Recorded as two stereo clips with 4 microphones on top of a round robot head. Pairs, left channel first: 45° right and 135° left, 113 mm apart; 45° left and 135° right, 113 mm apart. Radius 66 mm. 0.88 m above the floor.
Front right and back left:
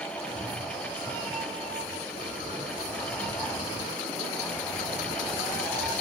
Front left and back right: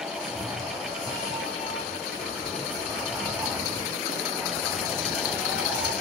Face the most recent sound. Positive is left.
turn(degrees=-120)